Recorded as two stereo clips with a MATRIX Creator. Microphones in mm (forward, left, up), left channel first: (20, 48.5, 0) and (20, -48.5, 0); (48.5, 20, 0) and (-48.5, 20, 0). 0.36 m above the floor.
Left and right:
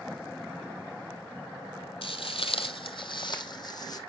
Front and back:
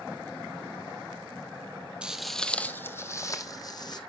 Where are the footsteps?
100° left, 0.7 m; by 4.0 s 45° left, 1.3 m.